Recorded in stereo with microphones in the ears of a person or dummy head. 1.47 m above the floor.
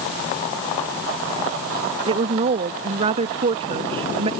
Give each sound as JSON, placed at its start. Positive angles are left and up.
{"t": 2.1, "sound": "a woman speaking", "side_deg": -40}